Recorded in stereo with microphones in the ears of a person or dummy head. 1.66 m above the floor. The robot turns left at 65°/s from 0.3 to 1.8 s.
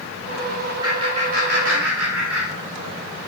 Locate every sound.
0.8 s laughter: 20° right (ahead or behind), 3 m; by 3.0 s 85° right, 3 m